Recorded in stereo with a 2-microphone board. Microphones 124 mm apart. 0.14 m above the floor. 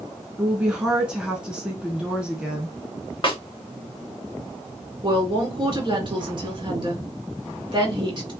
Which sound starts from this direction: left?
A snare drum, at 3.2 s.